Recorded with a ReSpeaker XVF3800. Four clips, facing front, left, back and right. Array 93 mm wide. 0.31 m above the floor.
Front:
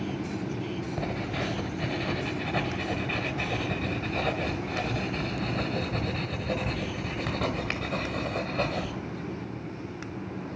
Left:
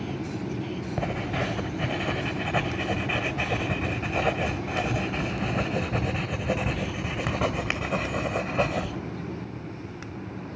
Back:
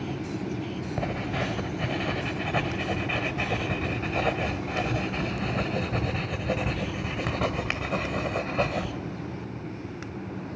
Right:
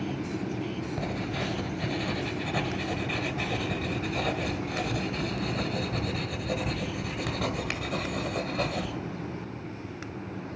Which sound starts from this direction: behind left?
Writing, at 1.0 s.